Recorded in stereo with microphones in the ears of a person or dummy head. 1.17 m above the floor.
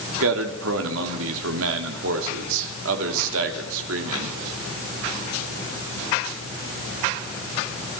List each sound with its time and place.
0.2 s a man speaking: 75° right (ahead or behind), 2 m